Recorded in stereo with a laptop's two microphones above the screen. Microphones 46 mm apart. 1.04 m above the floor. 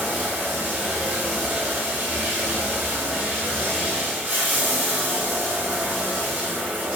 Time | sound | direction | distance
0.0 | running water | 35° right (ahead or behind) | 4 m